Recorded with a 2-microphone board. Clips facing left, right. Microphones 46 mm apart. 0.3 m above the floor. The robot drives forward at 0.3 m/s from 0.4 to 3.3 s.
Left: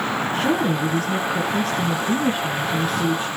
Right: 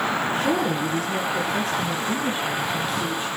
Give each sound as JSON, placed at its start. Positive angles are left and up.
{"t": 0.3, "sound": "a woman speaking", "side_deg": 65, "distance_m": 2.5}